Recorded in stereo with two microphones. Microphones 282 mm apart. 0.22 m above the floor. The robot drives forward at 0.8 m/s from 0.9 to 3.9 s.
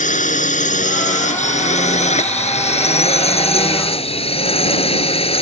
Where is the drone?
25° left (ahead or behind); by 5.4 s 20° left (ahead or behind).